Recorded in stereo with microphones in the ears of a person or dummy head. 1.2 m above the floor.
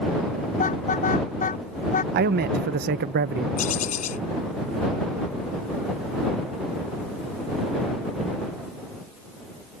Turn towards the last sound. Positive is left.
turn(degrees=40)  # may be behind; listen again after turning